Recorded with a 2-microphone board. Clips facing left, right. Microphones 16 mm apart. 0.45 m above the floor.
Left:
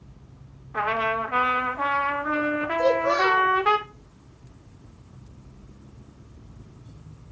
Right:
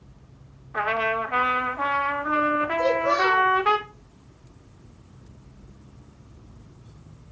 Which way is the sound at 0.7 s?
10° right (ahead or behind).